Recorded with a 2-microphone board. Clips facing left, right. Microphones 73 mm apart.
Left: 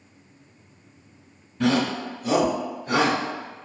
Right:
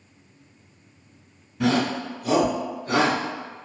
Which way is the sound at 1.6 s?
5° right (ahead or behind).